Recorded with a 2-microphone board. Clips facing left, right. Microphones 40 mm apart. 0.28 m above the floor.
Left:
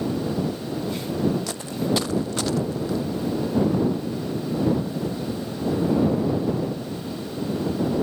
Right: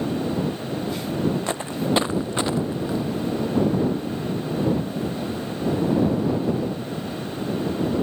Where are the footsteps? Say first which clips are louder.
Right 1 dB; 30° right (ahead or behind); by 3.0 s 20° right (ahead or behind).